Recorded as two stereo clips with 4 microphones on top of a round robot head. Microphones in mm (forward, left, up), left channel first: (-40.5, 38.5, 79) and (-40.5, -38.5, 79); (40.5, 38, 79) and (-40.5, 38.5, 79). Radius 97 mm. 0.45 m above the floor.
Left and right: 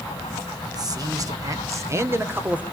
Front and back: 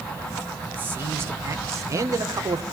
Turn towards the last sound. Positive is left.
turn(degrees=-160)